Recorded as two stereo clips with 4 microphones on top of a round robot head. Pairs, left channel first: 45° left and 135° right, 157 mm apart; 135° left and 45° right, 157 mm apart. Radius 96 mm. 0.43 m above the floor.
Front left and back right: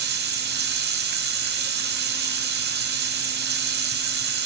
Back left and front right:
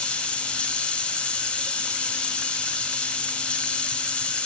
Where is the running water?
140° right, 1.9 m.